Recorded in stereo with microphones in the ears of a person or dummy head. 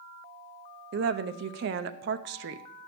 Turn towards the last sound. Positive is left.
turn(degrees=-70)  # may be behind; listen again after turning